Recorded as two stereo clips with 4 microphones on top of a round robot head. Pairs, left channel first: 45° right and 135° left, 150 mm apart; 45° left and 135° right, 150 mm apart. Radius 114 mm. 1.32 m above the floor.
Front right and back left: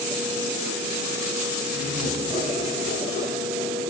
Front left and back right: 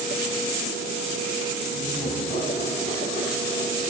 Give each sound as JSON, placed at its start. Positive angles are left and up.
{"t": 1.7, "sound": "laughter", "azimuth_deg": 5, "distance_m": 2.5}